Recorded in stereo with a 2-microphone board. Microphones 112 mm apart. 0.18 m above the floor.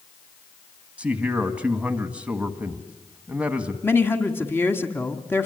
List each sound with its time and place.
1.0 s a man speaking: 10° right (ahead or behind), 1.6 m
3.8 s a woman speaking: 20° left (ahead or behind), 1.7 m